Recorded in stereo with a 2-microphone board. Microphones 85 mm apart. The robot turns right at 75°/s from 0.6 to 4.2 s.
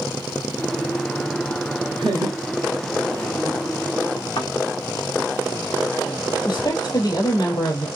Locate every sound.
2.0 s laughter: 60° right (ahead or behind), 3.5 m; by 3.7 s 45° left (ahead or behind), 3.5 m
4.4 s a thud: 85° left, 2.5 m
6.5 s a woman speaking: 55° left (ahead or behind), 3 m